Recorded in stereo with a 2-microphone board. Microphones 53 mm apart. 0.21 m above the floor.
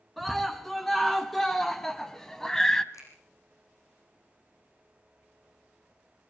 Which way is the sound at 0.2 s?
5° left (ahead or behind).